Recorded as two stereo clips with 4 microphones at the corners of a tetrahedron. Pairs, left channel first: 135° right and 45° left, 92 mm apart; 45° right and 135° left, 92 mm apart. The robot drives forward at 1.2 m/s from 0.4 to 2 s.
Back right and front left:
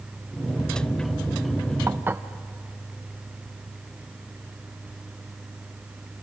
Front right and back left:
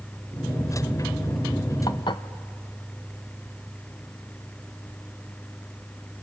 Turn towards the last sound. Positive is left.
turn(degrees=-20)